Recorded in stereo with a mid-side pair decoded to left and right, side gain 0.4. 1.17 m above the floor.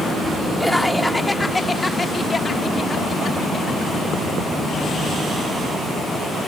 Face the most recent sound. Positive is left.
turn(degrees=60)